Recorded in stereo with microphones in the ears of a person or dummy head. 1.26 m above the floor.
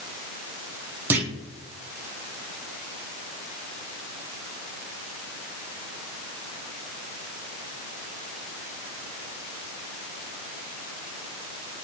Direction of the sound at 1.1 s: 10° right (ahead or behind).